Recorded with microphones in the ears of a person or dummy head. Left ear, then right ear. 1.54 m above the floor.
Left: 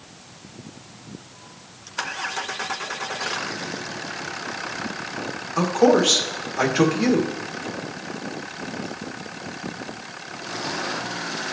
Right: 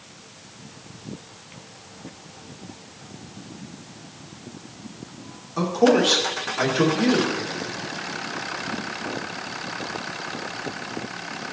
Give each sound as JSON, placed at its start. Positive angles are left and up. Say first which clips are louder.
{"t": 5.6, "sound": "a man speaking", "louder": "left 1 dB", "side_deg": 25, "distance_m": 1.7}